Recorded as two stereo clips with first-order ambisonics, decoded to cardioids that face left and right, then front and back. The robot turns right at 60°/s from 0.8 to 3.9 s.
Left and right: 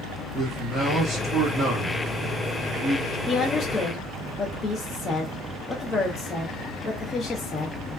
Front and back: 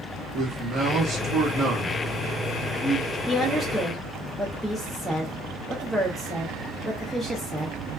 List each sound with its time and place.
0.3 s a man speaking: 155° right, 1.2 m; by 3.2 s 15° right, 1.2 m
3.3 s a woman speaking: 55° left, 0.5 m; by 7.8 s 90° left, 0.5 m